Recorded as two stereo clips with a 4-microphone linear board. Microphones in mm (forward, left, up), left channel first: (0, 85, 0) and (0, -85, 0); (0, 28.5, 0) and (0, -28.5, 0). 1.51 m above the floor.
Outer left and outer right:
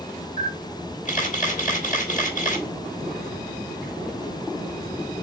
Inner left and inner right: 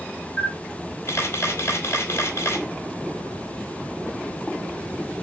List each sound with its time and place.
0.4 s a camera shutter: 50° left (ahead or behind), 2.0 m